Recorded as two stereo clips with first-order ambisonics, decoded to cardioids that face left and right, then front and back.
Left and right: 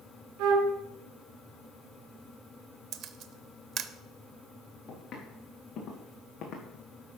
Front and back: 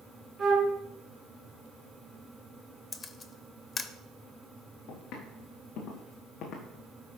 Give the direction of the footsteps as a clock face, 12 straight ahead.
11 o'clock.